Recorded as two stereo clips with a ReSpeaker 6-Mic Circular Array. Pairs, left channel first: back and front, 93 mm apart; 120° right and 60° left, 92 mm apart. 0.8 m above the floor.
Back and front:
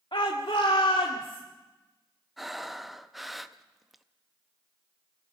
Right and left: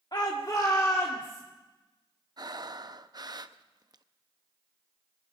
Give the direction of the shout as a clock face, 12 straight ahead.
5 o'clock.